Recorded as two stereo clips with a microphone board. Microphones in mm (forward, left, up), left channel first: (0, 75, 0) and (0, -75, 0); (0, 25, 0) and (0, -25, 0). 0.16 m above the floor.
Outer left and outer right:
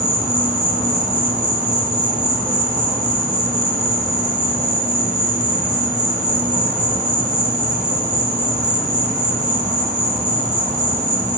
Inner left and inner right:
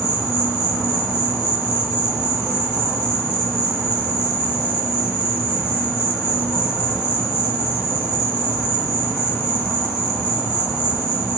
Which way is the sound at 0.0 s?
55° right (ahead or behind).